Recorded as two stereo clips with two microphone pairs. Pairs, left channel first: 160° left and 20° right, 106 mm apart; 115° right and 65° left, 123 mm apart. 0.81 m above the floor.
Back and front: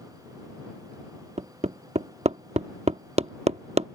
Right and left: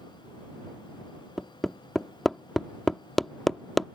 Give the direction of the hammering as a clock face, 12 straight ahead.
1 o'clock.